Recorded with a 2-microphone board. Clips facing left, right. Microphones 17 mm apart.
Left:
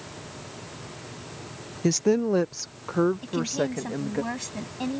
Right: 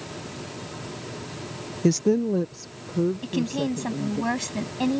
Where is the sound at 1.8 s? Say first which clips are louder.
Right 1 dB; centre (ahead or behind); by 4.2 s 75° left (ahead or behind).